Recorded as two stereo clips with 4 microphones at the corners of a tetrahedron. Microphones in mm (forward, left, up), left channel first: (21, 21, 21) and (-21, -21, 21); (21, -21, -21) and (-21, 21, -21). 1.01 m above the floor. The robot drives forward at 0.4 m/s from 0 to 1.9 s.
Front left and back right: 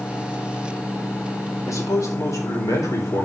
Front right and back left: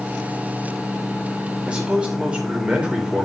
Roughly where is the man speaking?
Ahead left.